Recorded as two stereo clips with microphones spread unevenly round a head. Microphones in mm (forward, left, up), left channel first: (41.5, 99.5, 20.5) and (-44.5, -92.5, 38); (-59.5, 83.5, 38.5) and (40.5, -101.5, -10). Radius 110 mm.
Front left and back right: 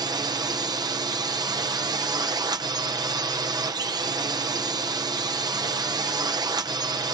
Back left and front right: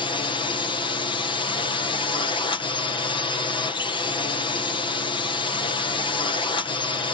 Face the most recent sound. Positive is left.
turn(degrees=-175)